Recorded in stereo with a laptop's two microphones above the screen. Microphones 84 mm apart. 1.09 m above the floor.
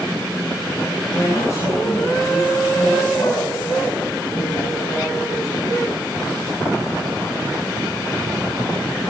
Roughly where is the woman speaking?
Left.